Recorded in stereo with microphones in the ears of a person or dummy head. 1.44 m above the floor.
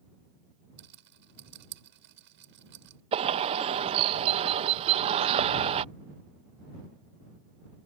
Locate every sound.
0.8 s a rattle: 60° right (ahead or behind)
3.1 s a bird: 35° right (ahead or behind)